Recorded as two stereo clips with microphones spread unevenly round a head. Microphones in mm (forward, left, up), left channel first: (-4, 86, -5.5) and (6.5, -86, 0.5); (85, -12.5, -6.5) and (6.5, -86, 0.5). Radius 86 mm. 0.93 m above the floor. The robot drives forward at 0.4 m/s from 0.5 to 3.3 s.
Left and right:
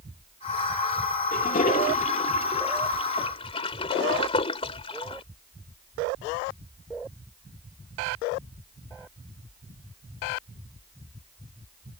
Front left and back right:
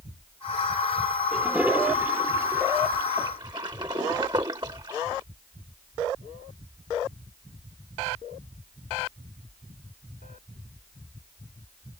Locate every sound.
1.3 s a toilet flushing: 140° left; by 5.2 s 155° left